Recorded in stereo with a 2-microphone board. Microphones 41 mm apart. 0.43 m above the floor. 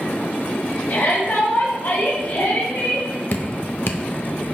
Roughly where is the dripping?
Left.